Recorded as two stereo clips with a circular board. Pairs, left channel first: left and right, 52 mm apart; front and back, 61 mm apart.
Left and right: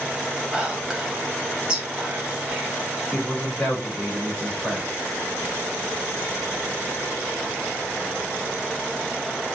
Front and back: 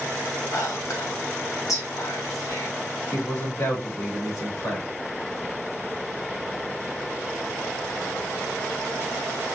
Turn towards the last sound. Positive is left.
turn(degrees=15)